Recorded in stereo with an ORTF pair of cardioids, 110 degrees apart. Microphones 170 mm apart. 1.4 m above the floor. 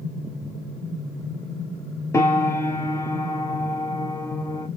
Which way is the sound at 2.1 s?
15° left.